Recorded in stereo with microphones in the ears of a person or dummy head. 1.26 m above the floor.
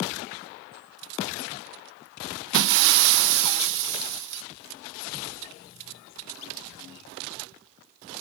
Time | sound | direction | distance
2.5 | breaking glass | 60° right (ahead or behind) | 0.5 m